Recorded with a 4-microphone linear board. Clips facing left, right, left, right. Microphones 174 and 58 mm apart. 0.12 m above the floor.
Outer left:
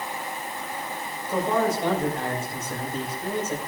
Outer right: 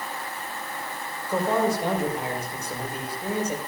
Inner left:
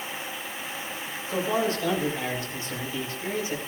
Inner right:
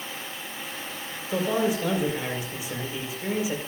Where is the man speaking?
10° right (ahead or behind), 6 m.